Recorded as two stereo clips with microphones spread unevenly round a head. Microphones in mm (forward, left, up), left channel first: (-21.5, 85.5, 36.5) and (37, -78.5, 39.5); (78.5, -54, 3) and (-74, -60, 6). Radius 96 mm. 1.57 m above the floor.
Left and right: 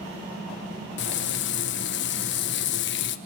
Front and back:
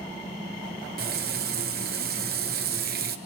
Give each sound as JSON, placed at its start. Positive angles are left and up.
{"t": 1.0, "sound": "frying", "azimuth_deg": 140, "distance_m": 1.2}